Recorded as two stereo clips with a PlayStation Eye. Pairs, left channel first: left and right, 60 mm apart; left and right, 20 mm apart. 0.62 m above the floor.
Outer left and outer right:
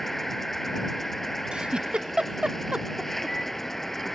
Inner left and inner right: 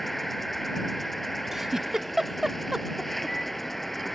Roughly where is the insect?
Centre.